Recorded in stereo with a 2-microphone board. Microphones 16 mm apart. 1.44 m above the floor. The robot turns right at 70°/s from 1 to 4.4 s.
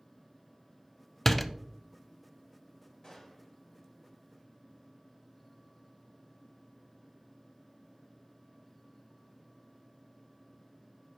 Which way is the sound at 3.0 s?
135° left.